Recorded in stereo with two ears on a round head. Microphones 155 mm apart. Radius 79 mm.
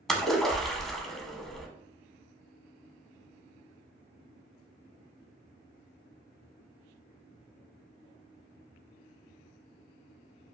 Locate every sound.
0.1 s a splash: centre (ahead or behind), 0.5 m